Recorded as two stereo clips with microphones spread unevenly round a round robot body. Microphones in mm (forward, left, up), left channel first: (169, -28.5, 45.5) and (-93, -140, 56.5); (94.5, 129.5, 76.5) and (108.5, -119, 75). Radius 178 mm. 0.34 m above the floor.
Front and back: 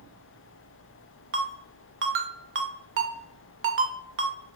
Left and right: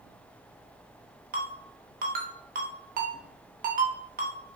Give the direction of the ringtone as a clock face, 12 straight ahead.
4 o'clock.